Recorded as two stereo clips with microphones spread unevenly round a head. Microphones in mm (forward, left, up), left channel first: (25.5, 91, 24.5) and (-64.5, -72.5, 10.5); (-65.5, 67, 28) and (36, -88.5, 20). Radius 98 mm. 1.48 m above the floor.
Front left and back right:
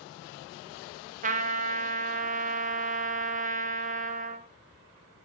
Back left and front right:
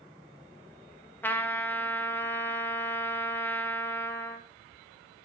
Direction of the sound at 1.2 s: 160° right.